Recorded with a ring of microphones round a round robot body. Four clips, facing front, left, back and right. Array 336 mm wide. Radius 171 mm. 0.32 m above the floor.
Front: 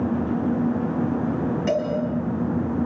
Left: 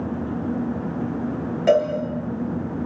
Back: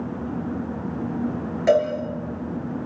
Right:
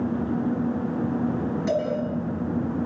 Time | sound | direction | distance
1.7 | a cowbell | 110° left | 7.5 m